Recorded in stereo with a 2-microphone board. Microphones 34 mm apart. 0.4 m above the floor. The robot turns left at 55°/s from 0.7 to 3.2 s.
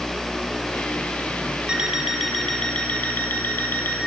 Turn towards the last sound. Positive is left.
turn(degrees=125)